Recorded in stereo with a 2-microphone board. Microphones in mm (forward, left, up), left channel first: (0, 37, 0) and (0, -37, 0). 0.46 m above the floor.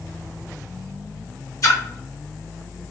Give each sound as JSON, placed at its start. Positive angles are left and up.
{"t": 1.6, "sound": "a splash", "side_deg": 50, "distance_m": 1.0}